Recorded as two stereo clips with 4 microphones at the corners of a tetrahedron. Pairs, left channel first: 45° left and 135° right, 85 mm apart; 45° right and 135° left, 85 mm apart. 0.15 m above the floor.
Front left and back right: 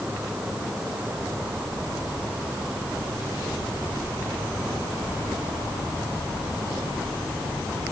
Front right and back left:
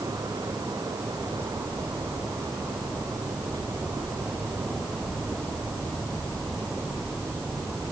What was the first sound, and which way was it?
Only background noise.